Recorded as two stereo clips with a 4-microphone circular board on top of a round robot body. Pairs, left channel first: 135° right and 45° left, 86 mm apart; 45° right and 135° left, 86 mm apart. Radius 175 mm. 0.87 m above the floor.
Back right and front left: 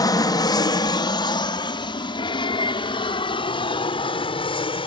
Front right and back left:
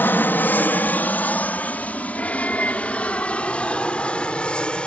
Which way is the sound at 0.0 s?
110° right.